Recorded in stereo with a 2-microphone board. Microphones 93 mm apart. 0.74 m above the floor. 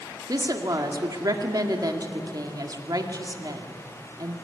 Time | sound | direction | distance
0.3 | a woman speaking | 45° right (ahead or behind) | 2 m